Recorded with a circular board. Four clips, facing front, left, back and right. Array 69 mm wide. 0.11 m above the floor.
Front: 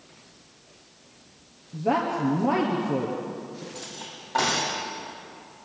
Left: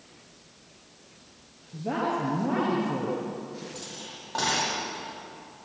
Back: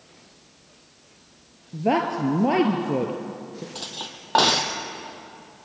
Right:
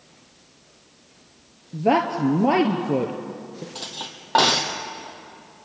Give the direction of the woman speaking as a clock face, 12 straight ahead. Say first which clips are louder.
Right 8 dB, back 2 dB; 4 o'clock.